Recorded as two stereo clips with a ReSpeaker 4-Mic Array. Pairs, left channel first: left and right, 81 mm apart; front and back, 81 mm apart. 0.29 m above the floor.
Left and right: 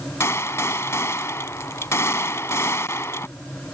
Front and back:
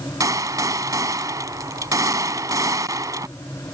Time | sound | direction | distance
0.2 | a gunshot | 140° left | ?